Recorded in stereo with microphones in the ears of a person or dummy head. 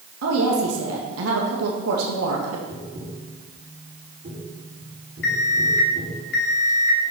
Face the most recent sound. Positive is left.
turn(degrees=65)  # may be behind; listen again after turning